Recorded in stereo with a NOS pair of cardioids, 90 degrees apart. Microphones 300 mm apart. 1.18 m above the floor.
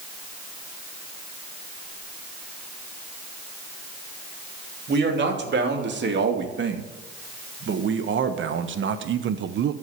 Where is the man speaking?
40° right, 3 m; by 9.7 s 75° right, 0.8 m.